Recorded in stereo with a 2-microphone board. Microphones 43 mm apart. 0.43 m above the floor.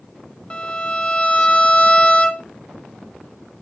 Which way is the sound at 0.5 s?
20° left (ahead or behind).